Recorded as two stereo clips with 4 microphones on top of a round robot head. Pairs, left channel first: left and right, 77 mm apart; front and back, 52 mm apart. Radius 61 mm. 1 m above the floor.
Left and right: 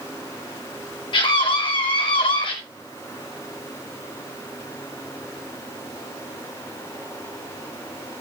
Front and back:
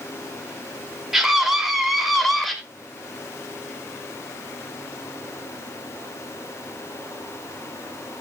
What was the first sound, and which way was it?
A scream, 100° left.